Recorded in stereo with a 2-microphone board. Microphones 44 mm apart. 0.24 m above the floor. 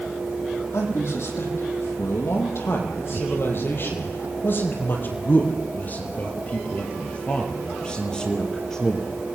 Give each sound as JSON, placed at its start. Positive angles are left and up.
{"t": 0.7, "sound": "a man speaking", "side_deg": 70, "distance_m": 7.5}